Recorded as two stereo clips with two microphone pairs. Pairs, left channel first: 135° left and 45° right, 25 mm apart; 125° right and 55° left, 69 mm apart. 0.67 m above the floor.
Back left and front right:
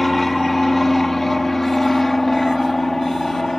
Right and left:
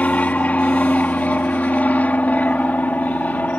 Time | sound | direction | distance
0.0 | an aircraft | 150° right | ?